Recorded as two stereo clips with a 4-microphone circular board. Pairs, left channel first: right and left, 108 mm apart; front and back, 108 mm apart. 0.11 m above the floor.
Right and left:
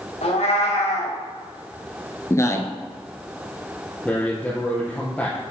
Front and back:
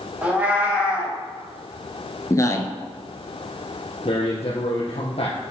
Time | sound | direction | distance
0.2 | a cat meowing | 100° right | 4.5 m
2.3 | a man speaking | 40° right | 1.7 m
4.0 | a man speaking | 10° right | 2.5 m